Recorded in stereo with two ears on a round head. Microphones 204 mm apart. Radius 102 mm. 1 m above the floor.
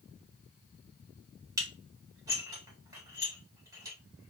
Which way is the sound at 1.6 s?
15° right (ahead or behind).